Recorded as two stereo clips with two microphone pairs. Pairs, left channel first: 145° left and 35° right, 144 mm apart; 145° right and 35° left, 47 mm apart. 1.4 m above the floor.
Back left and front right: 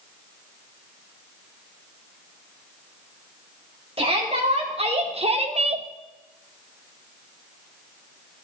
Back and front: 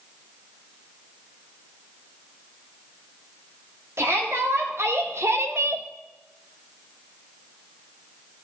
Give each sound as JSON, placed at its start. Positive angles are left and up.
{"t": 4.0, "sound": "a shout", "azimuth_deg": 10, "distance_m": 3.0}